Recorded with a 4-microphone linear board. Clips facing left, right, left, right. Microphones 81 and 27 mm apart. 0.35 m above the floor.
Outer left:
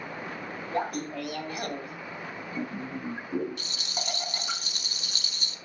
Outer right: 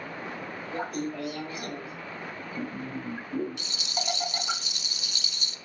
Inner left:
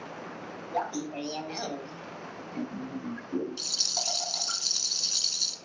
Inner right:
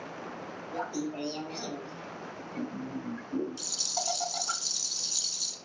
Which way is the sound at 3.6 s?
45° left (ahead or behind).